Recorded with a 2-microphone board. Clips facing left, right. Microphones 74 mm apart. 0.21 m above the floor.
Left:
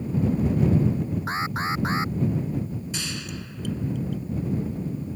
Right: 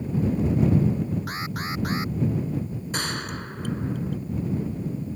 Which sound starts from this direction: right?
A gunshot, at 2.9 s.